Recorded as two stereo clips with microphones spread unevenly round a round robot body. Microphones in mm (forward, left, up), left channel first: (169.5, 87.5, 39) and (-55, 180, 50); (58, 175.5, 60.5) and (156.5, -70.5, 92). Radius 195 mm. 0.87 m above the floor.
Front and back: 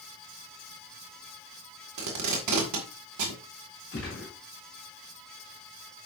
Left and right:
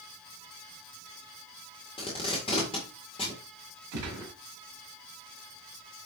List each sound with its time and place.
2.0 s tape being pulled: 175° right, 1.8 m
3.9 s a gunshot: 75° right, 4 m